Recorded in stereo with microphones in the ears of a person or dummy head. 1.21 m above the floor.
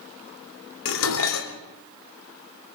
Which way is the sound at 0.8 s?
80° left.